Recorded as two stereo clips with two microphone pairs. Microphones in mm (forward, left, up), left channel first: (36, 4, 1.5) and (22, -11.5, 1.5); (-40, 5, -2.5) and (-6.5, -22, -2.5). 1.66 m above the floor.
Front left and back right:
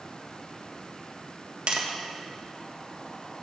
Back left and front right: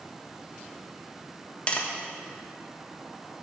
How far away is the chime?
No chime in this recording.